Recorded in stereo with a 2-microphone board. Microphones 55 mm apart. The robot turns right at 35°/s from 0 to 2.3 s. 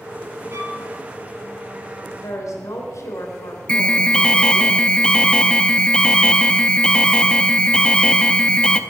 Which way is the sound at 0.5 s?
65° right (ahead or behind).